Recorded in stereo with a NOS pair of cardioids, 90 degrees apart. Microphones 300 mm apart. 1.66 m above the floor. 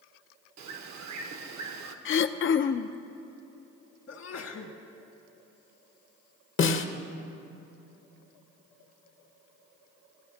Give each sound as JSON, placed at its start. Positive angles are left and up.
{"t": 0.6, "sound": "a bird", "azimuth_deg": -70, "distance_m": 1.2}
{"t": 2.0, "sound": "throat clearing", "azimuth_deg": 45, "distance_m": 0.6}
{"t": 4.1, "sound": "a sneeze", "azimuth_deg": 55, "distance_m": 1.6}
{"t": 6.6, "sound": "a snare drum", "azimuth_deg": 40, "distance_m": 0.9}